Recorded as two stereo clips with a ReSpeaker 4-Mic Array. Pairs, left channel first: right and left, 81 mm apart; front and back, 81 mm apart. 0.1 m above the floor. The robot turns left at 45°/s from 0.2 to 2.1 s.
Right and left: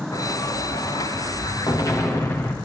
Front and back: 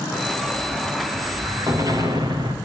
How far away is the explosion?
About 5.5 m.